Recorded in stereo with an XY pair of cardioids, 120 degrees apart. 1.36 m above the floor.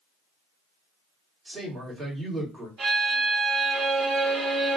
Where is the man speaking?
30° right, 1.8 m.